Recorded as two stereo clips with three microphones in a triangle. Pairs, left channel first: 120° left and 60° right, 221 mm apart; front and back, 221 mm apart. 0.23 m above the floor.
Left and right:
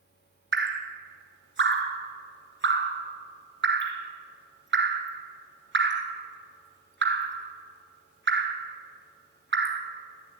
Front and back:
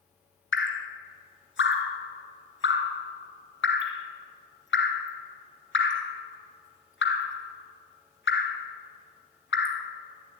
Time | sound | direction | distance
0.5 | dripping | 30° right | 1.7 m